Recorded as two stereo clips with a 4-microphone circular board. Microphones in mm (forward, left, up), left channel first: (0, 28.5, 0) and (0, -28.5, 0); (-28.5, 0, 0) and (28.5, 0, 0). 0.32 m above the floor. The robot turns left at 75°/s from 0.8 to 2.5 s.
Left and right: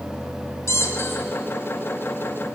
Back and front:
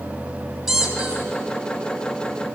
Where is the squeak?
80° left, 1.3 m; by 1.3 s 50° left, 1.3 m.